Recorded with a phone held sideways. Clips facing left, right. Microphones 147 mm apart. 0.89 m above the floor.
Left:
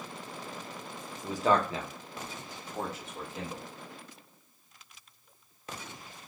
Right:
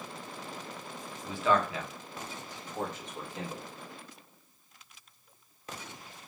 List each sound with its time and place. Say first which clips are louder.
1.2 s a man speaking: left 1 dB; 40° left (ahead or behind), 0.7 m; by 3.6 s centre (ahead or behind), 1.2 m